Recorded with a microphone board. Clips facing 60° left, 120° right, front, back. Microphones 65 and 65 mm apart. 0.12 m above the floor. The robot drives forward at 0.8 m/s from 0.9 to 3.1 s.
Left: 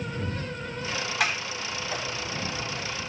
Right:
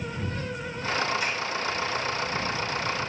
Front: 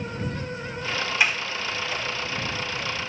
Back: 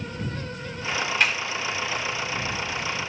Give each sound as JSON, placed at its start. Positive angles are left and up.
{"t": 1.2, "sound": "a sliding door", "azimuth_deg": 80, "distance_m": 4.5}